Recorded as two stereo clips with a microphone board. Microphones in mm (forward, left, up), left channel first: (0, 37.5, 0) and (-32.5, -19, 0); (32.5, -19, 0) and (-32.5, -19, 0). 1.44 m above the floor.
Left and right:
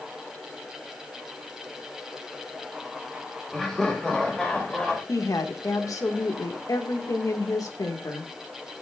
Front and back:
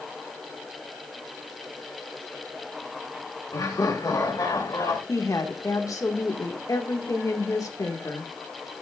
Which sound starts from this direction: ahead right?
Laughter, at 3.5 s.